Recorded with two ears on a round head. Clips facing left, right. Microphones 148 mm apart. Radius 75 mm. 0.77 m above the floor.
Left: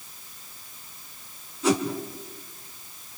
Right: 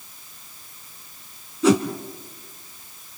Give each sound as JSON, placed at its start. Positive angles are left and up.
{"t": 1.6, "sound": "a whoosh", "side_deg": -70, "distance_m": 2.5}